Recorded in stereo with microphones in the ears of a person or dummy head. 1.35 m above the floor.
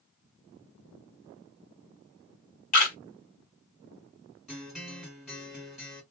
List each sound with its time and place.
2.7 s a camera shutter: 40° left (ahead or behind), 1.8 m
4.5 s a guitar: centre (ahead or behind), 1.8 m